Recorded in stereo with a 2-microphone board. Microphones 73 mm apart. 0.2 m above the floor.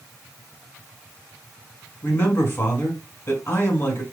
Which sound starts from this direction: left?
A man speaking, at 2.0 s.